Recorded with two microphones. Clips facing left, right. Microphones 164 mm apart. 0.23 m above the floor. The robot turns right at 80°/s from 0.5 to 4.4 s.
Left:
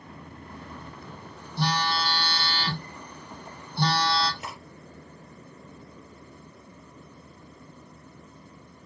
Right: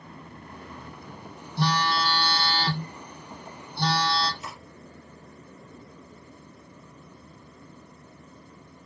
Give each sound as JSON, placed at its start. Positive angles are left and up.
{"t": 1.6, "sound": "a phone buzzing", "azimuth_deg": -125, "distance_m": 3.5}
{"t": 4.4, "sound": "cutlery clinking", "side_deg": 70, "distance_m": 3.5}